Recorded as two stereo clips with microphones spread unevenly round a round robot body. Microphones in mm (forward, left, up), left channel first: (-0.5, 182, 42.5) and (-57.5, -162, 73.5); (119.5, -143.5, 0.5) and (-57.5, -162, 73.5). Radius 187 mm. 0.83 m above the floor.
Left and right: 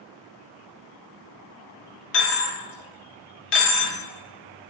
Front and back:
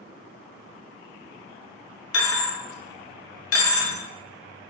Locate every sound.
2.1 s a dropped coin: 20° left, 0.5 m